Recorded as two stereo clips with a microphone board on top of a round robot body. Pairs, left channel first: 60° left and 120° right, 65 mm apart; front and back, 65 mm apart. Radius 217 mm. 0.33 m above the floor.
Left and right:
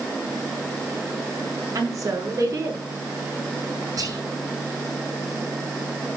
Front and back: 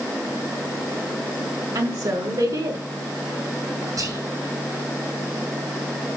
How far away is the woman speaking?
About 5.5 m.